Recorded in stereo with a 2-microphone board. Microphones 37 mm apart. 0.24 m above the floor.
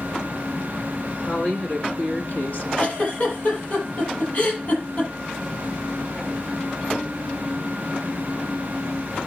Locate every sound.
1.2 s a woman speaking: 60° left (ahead or behind), 2.5 m; by 2.6 s 50° left (ahead or behind), 2 m
2.8 s a giggle: 45° left (ahead or behind), 6.5 m